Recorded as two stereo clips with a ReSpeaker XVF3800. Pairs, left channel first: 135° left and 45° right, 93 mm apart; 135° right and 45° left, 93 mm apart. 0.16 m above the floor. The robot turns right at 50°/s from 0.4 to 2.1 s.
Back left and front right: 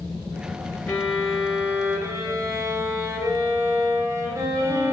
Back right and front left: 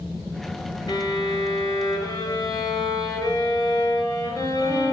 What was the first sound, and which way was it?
A violin, 150° right.